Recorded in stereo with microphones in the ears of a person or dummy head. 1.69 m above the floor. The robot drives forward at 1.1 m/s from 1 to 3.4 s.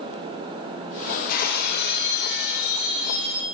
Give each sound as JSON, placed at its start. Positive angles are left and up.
{"t": 1.3, "sound": "breaking glass", "side_deg": 50, "distance_m": 3.0}